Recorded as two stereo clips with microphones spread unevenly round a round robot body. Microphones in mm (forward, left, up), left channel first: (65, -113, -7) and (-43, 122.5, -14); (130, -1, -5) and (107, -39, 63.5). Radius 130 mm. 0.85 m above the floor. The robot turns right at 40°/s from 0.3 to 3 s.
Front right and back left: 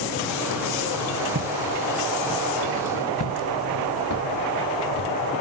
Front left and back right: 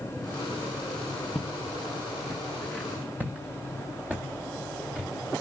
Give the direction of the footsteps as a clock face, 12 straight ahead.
6 o'clock.